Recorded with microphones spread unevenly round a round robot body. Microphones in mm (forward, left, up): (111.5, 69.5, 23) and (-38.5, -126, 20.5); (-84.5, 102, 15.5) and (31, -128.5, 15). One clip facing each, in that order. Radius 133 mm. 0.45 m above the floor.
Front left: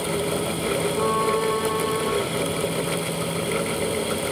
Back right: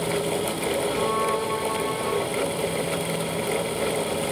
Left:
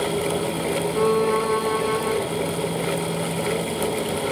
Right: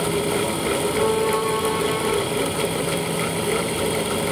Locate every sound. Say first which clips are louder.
0.9 s a violin: front left 2 dB, left 3 dB; 75° left, 5.5 m